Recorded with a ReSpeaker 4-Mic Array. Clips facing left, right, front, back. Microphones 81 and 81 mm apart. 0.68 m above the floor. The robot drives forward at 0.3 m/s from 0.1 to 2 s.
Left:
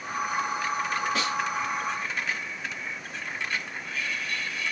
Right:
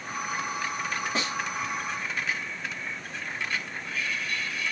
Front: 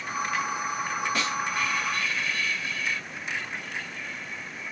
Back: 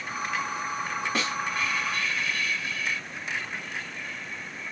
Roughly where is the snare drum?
Behind right.